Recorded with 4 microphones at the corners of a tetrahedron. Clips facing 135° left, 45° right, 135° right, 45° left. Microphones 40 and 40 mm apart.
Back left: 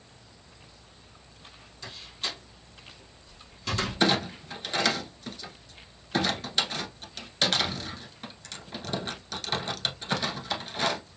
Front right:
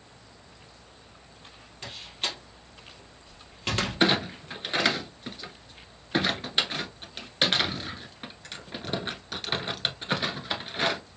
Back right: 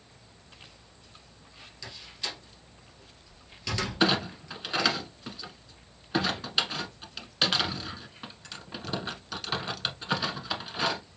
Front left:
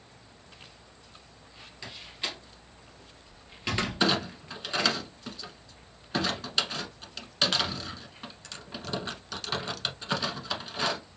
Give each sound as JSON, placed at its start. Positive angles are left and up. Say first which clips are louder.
{"t": 1.8, "sound": "a door slam", "louder": "front right 2 dB, front left 2 dB", "azimuth_deg": -15, "distance_m": 2.0}
{"t": 4.0, "sound": "a clunk", "louder": "front right 1 dB, back right 3 dB", "azimuth_deg": -60, "distance_m": 1.0}